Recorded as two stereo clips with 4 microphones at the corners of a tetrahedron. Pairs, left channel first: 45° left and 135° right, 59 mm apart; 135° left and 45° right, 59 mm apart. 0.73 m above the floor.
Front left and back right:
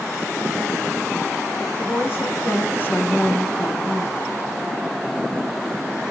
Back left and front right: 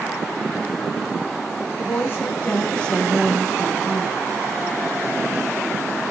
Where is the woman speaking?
95° left, 1.5 m; by 4.2 s 45° right, 1.0 m.